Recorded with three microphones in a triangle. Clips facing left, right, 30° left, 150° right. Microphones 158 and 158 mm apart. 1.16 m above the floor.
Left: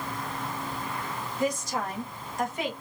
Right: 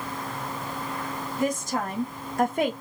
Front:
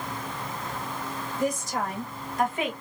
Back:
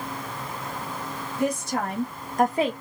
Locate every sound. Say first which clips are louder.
1.4 s a woman speaking: right 2 dB, back 2 dB; 130° right, 1.4 m; by 2.7 s 95° right, 0.6 m